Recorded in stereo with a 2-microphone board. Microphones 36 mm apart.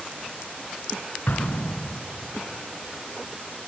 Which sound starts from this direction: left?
An explosion, at 1.3 s.